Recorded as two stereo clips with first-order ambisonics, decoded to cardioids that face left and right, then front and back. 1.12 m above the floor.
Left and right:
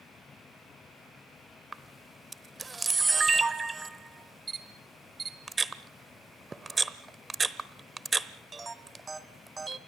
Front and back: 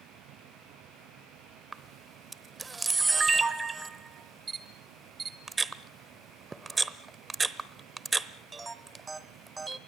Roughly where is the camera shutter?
Behind right.